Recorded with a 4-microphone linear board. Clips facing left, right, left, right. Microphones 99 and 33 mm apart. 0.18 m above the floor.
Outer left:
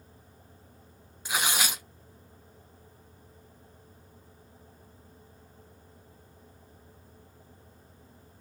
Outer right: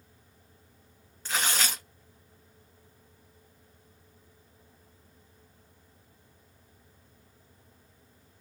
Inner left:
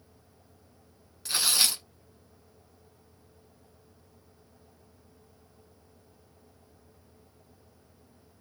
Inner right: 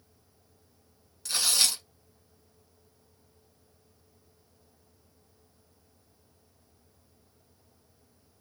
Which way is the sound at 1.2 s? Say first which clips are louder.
Outer left 1 dB, inner left 1 dB; 10° left (ahead or behind).